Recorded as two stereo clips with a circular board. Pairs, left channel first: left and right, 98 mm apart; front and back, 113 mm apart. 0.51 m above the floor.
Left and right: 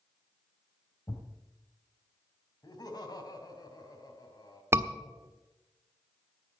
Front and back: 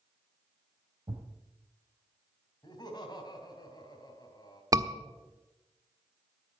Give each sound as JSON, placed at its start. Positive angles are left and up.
{"t": 1.1, "sound": "a thud", "azimuth_deg": 135, "distance_m": 4.0}
{"t": 2.6, "sound": "laughter", "azimuth_deg": 45, "distance_m": 3.0}
{"t": 4.7, "sound": "a scream", "azimuth_deg": -140, "distance_m": 1.2}